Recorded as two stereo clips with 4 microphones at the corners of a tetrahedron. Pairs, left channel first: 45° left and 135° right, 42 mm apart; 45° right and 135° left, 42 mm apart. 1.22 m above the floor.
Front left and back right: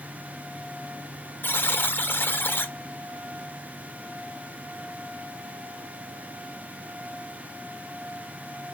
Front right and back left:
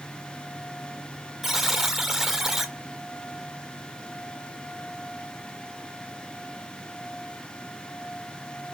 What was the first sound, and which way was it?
A buzzer, 55° left.